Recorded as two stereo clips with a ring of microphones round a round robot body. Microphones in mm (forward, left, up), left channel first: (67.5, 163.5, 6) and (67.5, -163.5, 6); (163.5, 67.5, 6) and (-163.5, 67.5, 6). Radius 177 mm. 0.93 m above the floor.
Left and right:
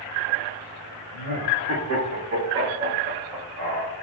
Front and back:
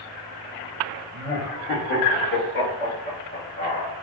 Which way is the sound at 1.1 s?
65° right.